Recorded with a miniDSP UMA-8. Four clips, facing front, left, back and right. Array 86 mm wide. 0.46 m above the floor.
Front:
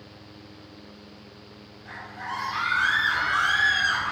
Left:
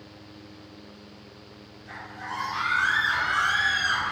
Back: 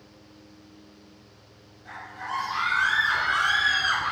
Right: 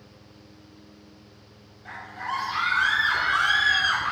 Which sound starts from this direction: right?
A scream, at 1.9 s.